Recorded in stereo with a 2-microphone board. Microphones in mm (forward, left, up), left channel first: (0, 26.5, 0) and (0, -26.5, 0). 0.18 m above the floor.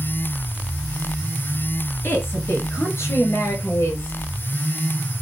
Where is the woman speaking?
50° left (ahead or behind), 2.5 m; by 4.2 s 65° left (ahead or behind), 3.5 m.